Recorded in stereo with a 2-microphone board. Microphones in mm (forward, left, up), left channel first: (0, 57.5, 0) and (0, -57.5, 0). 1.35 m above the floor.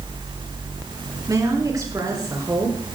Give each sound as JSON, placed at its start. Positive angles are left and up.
{"t": 1.3, "sound": "a woman speaking", "side_deg": -35, "distance_m": 3.5}